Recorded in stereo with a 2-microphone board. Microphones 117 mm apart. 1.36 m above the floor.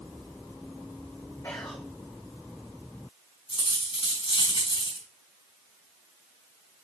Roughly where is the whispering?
Left.